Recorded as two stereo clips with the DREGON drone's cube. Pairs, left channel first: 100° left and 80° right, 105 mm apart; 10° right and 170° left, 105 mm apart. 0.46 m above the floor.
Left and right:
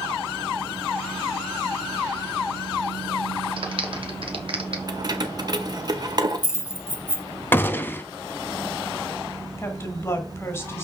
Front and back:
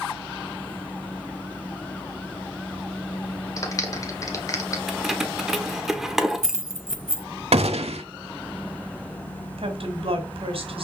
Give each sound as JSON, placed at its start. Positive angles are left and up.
{"t": 3.6, "sound": "a clap", "azimuth_deg": -65, "distance_m": 1.4}
{"t": 4.9, "sound": "keys jangling", "azimuth_deg": -105, "distance_m": 0.9}
{"t": 7.5, "sound": "a gunshot", "azimuth_deg": 170, "distance_m": 0.7}
{"t": 9.6, "sound": "a woman speaking", "azimuth_deg": 160, "distance_m": 1.7}